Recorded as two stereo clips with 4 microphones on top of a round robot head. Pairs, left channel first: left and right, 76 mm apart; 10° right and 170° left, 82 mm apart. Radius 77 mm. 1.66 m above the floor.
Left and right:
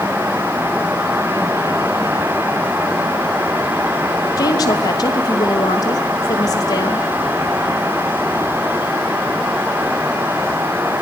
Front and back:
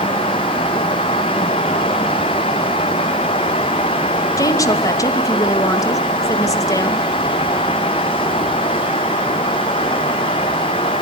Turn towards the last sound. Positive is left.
turn(degrees=40)